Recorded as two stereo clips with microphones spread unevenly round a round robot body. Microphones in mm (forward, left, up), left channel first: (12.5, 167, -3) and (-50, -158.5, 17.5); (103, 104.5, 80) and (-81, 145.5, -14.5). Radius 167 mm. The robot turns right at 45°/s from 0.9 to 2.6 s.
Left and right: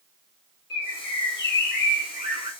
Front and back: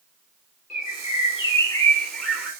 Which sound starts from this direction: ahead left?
A bird, at 0.7 s.